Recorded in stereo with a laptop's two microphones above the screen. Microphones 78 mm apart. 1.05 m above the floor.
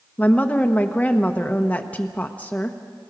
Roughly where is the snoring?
No snoring in this recording.